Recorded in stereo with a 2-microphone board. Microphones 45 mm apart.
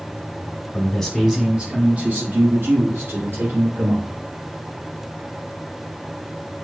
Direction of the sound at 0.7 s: 20° left (ahead or behind).